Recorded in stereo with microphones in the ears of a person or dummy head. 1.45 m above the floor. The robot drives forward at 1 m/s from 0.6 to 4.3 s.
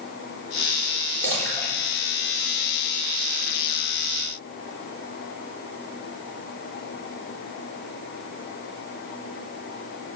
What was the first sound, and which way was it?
A splash, 10° left (ahead or behind).